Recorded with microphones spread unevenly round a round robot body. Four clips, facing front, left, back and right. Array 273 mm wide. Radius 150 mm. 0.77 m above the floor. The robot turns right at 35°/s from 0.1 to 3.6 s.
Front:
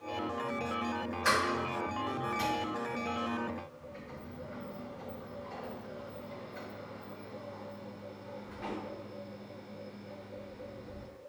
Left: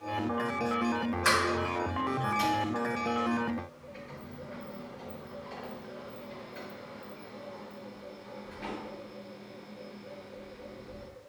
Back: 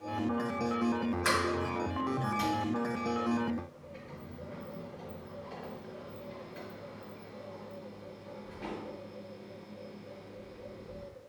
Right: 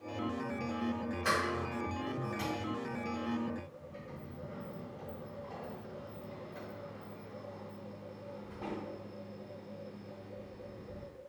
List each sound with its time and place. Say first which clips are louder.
1.2 s a sliding door: left 5 dB, front 4 dB; 165° left, 1.9 m; by 11.1 s 115° right, 1.9 m